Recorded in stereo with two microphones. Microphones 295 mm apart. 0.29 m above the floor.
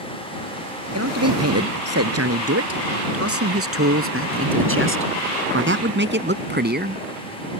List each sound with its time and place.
0.9 s a man speaking: 55° right (ahead or behind); by 7.0 s 30° right (ahead or behind)